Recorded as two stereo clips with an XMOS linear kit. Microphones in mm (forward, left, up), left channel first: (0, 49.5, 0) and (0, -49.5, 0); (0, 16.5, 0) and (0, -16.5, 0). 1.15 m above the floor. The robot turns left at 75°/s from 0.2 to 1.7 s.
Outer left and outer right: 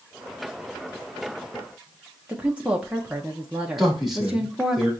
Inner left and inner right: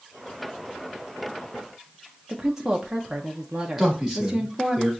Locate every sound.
2.3 s a woman speaking: 10° right (ahead or behind), 0.6 m
3.8 s a man speaking: 5° right (ahead or behind), 2.5 m